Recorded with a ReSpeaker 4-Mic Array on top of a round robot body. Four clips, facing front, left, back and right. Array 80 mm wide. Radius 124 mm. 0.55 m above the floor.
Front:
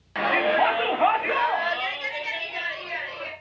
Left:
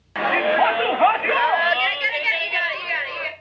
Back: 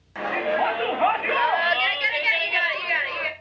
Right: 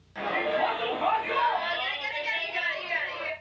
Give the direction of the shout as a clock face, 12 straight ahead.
10 o'clock.